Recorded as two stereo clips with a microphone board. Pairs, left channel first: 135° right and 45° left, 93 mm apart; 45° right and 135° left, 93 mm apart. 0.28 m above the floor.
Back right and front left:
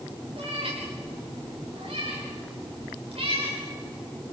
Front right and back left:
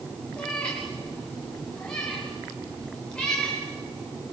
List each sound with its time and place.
0.4 s a cat meowing: 35° left, 7 m; by 3.6 s 40° left, 10 m